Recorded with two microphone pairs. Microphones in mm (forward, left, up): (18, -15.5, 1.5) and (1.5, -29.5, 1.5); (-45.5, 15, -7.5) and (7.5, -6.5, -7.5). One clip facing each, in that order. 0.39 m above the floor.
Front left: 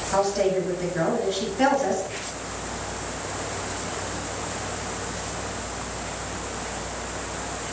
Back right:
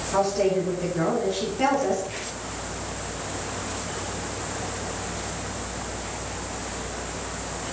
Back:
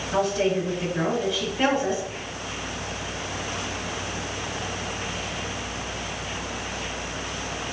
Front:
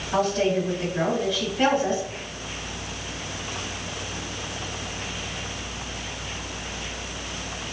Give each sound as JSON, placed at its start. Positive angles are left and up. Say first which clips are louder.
{"t": 0.1, "sound": "a woman speaking", "louder": "even, front 1 dB", "azimuth_deg": 70, "distance_m": 2.5}